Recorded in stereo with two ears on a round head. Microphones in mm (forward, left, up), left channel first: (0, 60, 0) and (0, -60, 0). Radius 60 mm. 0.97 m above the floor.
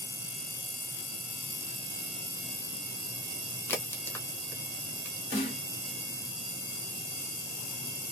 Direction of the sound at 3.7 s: 15° left (ahead or behind).